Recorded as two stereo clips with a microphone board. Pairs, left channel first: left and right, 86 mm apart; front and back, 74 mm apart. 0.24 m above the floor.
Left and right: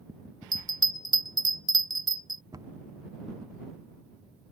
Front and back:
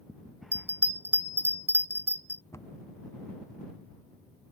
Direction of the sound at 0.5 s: 120° right.